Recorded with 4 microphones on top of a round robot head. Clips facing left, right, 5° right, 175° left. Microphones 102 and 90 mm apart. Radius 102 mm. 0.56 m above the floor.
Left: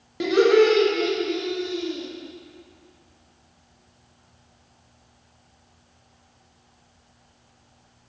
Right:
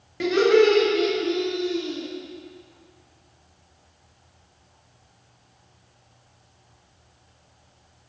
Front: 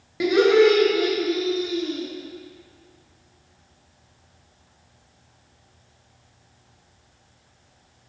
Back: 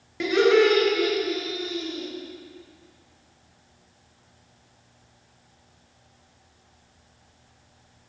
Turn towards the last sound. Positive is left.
turn(degrees=-50)